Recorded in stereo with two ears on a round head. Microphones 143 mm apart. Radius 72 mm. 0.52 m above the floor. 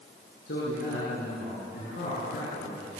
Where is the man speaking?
75° left (ahead or behind), 7.5 m; by 2.9 s 60° left (ahead or behind), 7.5 m.